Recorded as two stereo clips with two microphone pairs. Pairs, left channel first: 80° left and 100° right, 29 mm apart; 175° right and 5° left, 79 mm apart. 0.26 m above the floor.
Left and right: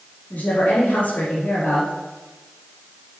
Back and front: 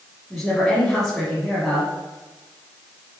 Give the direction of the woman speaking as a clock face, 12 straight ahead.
9 o'clock.